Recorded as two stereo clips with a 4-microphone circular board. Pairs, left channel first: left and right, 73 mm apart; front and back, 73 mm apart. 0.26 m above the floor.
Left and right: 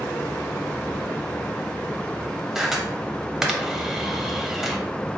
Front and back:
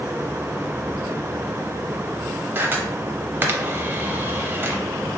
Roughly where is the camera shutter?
Behind.